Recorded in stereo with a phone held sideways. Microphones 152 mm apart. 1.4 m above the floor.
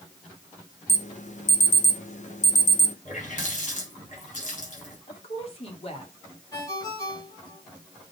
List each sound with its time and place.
0.9 s an alarm: 55° left (ahead or behind), 0.9 m
3.0 s a running tap: 55° left (ahead or behind), 5.5 m
5.1 s a woman speaking: 45° left (ahead or behind), 2.5 m
6.5 s a ringtone: 30° left (ahead or behind), 6.5 m